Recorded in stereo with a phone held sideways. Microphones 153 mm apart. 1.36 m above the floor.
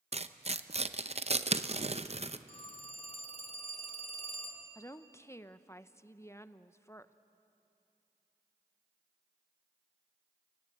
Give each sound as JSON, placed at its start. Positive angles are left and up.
{"t": 0.1, "sound": "tearing paper", "side_deg": -45, "distance_m": 0.6}
{"t": 2.5, "sound": "a phone ringing", "side_deg": 40, "distance_m": 2.0}
{"t": 4.8, "sound": "a woman speaking", "side_deg": 20, "distance_m": 0.7}